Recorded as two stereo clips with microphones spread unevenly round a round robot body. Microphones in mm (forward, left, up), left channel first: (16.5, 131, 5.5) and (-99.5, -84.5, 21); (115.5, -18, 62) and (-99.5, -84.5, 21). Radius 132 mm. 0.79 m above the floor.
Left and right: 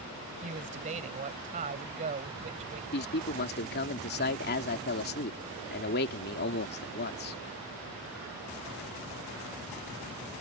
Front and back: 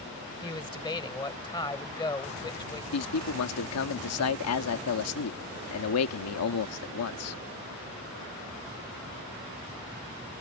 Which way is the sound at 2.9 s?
15° left.